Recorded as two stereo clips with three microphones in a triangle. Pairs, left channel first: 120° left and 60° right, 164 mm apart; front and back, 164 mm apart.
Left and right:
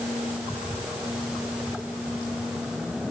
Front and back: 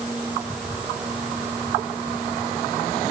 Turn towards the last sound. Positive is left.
No sound to turn to.